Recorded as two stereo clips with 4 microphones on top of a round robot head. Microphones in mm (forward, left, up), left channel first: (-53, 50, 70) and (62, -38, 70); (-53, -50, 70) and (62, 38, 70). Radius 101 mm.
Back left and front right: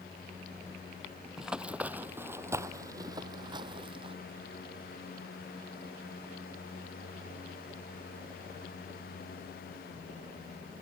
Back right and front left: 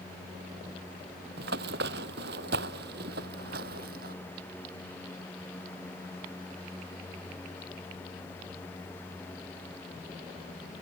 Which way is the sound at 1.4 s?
50° left.